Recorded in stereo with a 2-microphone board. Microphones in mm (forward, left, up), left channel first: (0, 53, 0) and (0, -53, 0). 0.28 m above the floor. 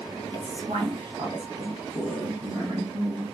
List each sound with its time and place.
0.3 s a woman speaking: 50° right (ahead or behind), 1.6 m; by 3.2 s 35° right (ahead or behind), 4 m